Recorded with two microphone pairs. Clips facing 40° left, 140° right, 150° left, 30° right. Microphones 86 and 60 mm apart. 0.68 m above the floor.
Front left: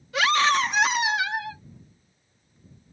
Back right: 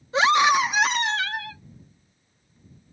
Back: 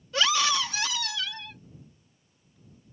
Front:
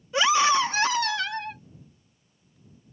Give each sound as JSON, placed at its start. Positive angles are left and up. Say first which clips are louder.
{"t": 0.1, "sound": "a scream", "louder": "back right 3 dB, front 5 dB", "azimuth_deg": -90}